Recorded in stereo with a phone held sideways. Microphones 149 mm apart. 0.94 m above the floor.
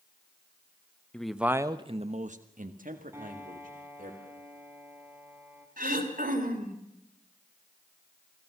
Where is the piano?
20° right (ahead or behind), 3.5 m.